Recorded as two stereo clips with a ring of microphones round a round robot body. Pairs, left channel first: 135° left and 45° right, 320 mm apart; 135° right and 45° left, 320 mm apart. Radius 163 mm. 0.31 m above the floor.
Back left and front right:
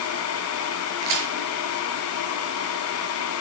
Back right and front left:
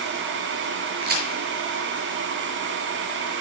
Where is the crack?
15° right, 7 m.